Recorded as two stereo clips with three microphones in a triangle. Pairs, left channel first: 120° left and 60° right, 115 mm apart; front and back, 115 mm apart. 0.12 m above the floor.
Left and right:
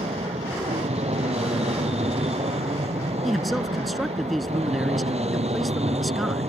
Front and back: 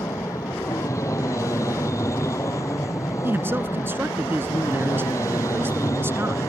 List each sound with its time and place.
0.0 s an aircraft: 60° right
3.2 s a man speaking: 150° right